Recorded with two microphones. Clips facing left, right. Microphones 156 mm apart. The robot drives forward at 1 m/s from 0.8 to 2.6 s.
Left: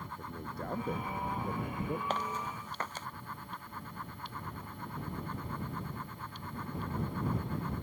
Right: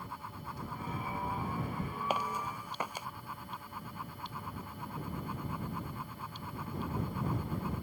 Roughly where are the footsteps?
Centre.